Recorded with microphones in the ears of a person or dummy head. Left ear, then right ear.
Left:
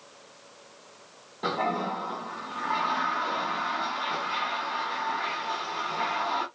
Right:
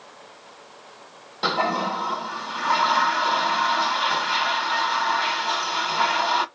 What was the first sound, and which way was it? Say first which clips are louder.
A toilet flushing: right 6 dB; 55° right (ahead or behind).